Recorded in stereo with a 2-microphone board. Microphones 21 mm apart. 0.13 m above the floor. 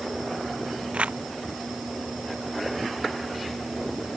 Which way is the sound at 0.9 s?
85° right.